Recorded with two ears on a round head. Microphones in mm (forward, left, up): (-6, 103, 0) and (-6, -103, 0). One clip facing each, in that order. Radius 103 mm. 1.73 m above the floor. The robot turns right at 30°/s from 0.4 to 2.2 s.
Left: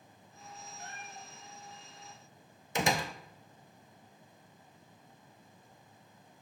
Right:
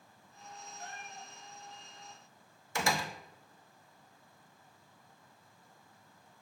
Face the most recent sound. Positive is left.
turn(degrees=20)  # may be behind; listen again after turning